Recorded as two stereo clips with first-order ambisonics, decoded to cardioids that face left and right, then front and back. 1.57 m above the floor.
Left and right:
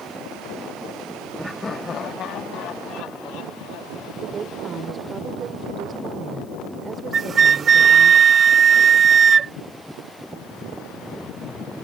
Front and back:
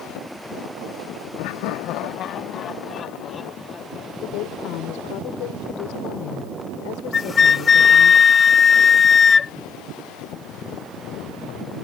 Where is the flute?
45° right.